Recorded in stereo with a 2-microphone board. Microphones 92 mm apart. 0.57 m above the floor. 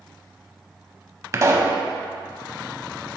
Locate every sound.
1.3 s a pop: 35° right (ahead or behind), 0.6 m